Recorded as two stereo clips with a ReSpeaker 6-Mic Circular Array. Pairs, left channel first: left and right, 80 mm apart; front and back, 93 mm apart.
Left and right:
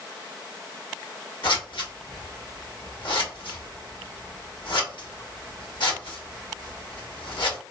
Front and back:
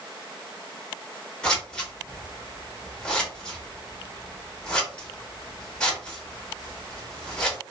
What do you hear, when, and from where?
1.4 s scissors: 80° left, 1.2 m